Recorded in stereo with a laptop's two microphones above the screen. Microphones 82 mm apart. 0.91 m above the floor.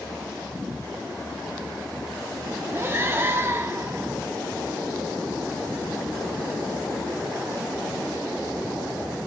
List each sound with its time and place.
2.7 s breathing: 30° right (ahead or behind), 0.5 m